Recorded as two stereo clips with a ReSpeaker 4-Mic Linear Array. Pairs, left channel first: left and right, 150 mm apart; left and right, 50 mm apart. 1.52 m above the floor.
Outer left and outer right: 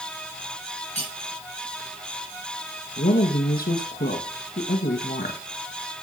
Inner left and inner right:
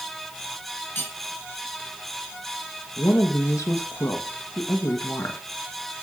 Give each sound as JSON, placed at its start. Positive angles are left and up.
{"t": 0.9, "sound": "cutlery clinking", "side_deg": 50, "distance_m": 6.5}
{"t": 3.0, "sound": "a woman speaking", "side_deg": 85, "distance_m": 1.8}